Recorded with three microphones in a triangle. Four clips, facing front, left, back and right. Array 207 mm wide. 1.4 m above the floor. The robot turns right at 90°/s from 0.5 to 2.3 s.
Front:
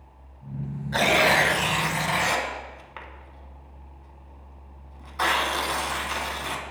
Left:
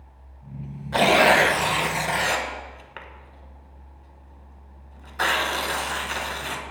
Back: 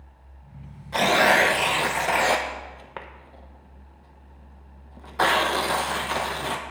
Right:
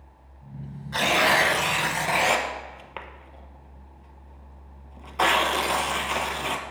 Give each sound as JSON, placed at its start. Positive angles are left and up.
{"t": 0.9, "sound": "tearing paper", "azimuth_deg": 75, "distance_m": 0.7}